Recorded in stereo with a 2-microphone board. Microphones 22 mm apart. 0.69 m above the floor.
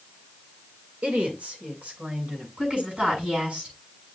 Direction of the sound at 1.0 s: 70° right (ahead or behind).